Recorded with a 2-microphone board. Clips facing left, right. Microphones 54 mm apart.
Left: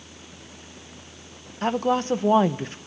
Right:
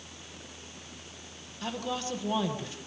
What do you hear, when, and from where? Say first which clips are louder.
1.6 s a woman speaking: left 11 dB; 45° left (ahead or behind), 1.3 m